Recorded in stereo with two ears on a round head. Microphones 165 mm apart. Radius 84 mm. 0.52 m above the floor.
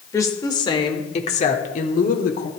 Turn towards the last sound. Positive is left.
turn(degrees=45)  # may be behind; listen again after turning